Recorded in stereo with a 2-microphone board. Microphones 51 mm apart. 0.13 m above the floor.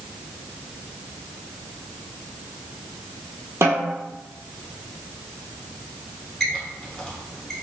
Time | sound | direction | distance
3.6 | a snare drum | 60° right (ahead or behind) | 0.8 m
6.4 | a squeak | 5° left (ahead or behind) | 1.2 m